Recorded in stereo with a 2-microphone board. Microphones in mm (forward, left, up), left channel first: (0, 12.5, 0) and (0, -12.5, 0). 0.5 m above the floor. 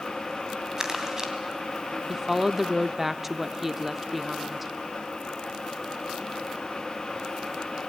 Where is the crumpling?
25° right (ahead or behind), 2.5 m.